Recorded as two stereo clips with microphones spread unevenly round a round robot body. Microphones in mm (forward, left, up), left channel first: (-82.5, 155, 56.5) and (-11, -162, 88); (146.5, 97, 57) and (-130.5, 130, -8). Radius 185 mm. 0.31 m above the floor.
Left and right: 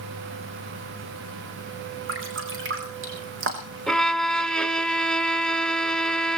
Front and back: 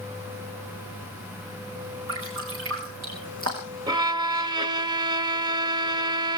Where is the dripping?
130° right, 3.5 m.